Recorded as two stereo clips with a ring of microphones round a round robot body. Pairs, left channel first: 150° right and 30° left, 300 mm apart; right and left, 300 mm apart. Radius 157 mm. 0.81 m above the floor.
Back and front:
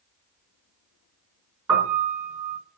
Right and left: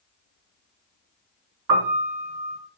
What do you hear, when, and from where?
1.7 s a piano: 105° left, 3.5 m